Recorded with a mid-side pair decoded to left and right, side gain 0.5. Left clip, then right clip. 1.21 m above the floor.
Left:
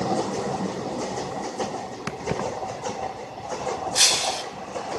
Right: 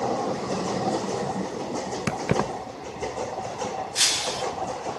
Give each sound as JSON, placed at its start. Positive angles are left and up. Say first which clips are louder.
{"t": 2.1, "sound": "keys jangling", "louder": "right 2 dB", "azimuth_deg": -40, "distance_m": 0.5}
{"t": 4.0, "sound": "breaking glass", "louder": "left 3 dB", "azimuth_deg": 35, "distance_m": 3.5}